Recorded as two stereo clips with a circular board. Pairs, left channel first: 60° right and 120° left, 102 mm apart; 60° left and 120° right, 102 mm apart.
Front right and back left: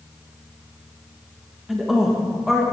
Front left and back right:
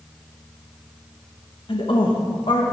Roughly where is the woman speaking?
Ahead left.